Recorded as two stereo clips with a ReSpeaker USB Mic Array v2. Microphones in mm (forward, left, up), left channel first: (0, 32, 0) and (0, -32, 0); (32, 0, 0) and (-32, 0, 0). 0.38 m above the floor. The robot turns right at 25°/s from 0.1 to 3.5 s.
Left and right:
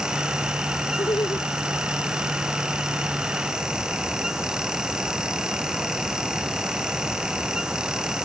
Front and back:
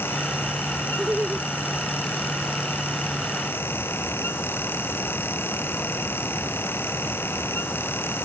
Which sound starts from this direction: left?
Laughter, at 1.0 s.